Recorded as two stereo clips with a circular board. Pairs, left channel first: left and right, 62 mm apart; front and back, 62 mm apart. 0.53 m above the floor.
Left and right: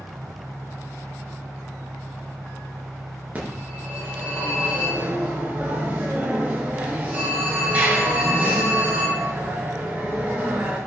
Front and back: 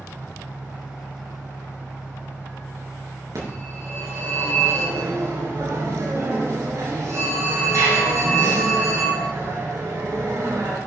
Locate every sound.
0.0 s an engine running: 70° right, 5 m
3.4 s a phone ringing: 155° right, 5.5 m